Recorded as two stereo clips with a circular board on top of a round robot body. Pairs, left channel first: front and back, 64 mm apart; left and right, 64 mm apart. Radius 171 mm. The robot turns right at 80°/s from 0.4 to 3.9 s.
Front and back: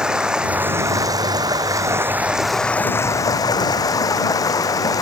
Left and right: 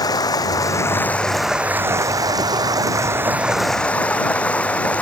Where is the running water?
100° left; by 5.0 s 20° left.